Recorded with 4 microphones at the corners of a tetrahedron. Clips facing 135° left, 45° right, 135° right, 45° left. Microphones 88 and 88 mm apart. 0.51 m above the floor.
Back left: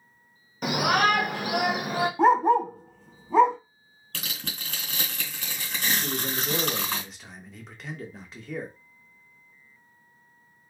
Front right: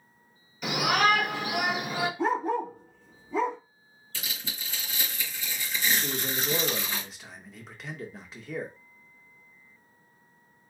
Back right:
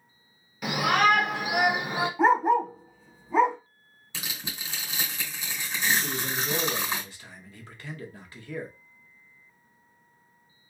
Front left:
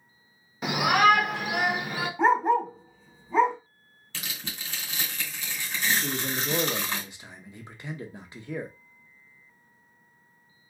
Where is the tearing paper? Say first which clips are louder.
Back left 2 dB, back right 1 dB; 150° left, 2.5 m.